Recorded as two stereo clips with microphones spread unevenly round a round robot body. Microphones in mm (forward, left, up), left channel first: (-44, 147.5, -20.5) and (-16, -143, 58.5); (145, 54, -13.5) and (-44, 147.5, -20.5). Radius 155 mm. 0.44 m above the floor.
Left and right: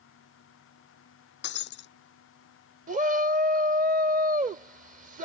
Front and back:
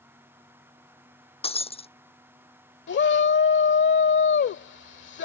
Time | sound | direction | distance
1.4 | breaking glass | 35° left | ?
2.9 | a shout | 15° right | ?